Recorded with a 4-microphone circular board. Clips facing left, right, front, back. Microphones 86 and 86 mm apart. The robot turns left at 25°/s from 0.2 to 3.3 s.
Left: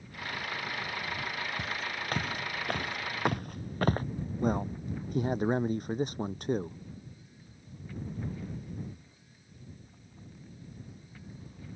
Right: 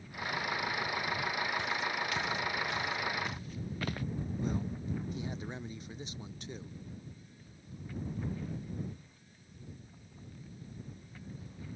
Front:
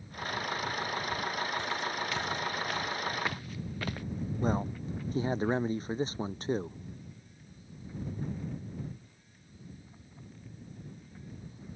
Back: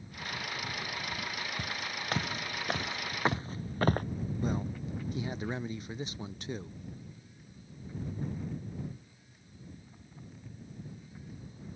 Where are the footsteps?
140° left.